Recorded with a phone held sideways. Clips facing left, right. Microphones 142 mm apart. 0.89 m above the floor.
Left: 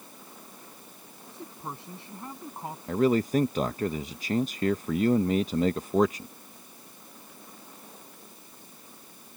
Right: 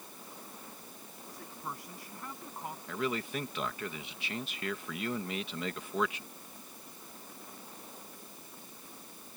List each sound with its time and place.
1.3 s a man speaking: 25° left (ahead or behind)
2.9 s a man speaking: 40° left (ahead or behind)